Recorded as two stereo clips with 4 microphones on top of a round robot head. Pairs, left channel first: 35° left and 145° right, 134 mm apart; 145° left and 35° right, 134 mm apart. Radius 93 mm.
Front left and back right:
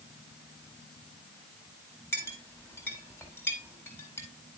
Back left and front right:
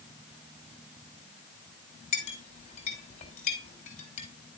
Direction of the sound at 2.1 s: 105° left.